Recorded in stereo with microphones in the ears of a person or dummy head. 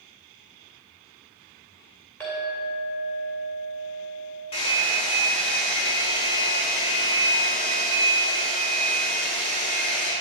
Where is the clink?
10° left (ahead or behind), 2 m.